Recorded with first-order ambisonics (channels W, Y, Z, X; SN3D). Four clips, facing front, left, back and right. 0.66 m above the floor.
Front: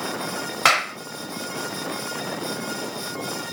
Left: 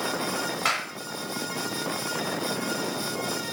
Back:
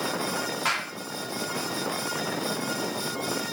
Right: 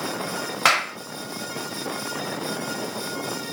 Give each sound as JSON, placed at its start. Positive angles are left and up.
{"t": 0.7, "sound": "a clap", "azimuth_deg": -40, "distance_m": 0.8}